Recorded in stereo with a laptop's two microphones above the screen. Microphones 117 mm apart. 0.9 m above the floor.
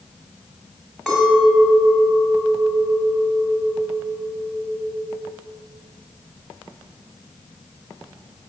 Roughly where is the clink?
Centre.